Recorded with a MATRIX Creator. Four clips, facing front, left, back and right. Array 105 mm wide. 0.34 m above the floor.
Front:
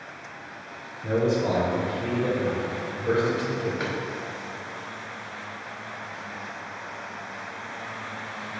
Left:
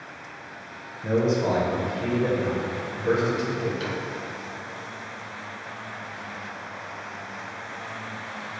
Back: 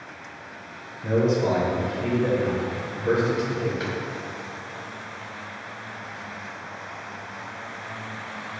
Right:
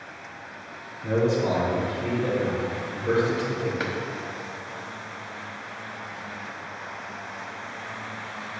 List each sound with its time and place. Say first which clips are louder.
1.0 s a man speaking: even, back 2 dB; 125° left, 1.3 m
3.8 s a drawer: right 1 dB, even; 75° right, 1.1 m